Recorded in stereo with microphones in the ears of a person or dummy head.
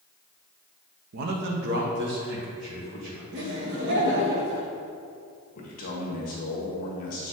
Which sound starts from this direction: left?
A man speaking, at 5.5 s.